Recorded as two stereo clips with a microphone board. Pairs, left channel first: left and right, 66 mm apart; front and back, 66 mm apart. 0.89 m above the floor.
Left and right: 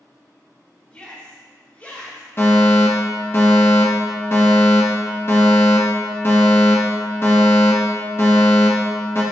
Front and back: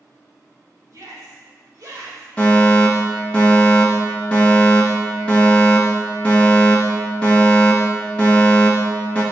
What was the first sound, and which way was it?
A shout, 160° left.